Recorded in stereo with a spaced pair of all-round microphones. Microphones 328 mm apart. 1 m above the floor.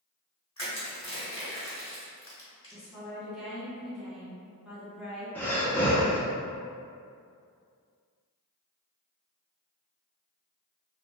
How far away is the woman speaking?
About 1.2 m.